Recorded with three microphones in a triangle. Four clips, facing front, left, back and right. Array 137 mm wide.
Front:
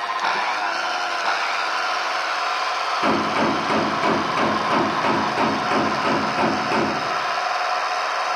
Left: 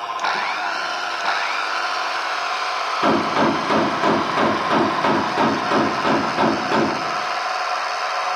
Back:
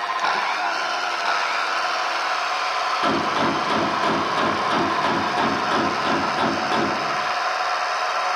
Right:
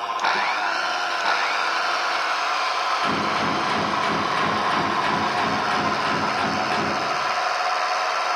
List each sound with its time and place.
3.0 s a gunshot: 75° left, 1.9 m